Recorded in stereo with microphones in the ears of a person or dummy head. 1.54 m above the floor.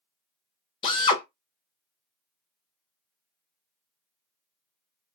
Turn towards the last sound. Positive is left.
turn(degrees=30)  # may be behind; listen again after turning